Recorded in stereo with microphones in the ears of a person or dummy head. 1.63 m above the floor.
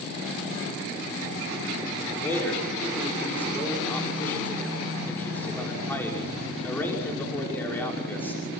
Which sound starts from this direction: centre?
A man speaking, at 2.2 s.